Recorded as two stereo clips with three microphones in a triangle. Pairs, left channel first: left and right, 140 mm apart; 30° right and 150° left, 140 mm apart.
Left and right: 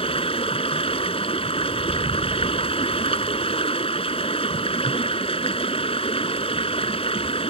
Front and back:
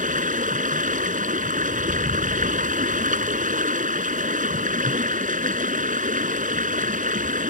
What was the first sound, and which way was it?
Running water, 135° left.